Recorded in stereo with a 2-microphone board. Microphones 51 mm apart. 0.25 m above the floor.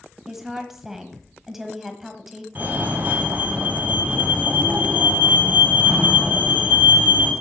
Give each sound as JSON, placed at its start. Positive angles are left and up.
{"t": 0.3, "sound": "a woman speaking", "side_deg": -5, "distance_m": 1.4}
{"t": 2.5, "sound": "a fire alarm", "side_deg": -35, "distance_m": 3.0}